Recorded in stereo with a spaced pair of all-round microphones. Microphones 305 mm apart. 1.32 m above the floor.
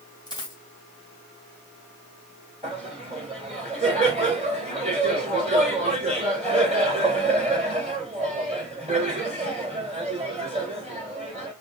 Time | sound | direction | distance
0.3 | a dropped coin | 15° left (ahead or behind) | 2.5 m
2.6 | laughter | 20° right (ahead or behind) | 3 m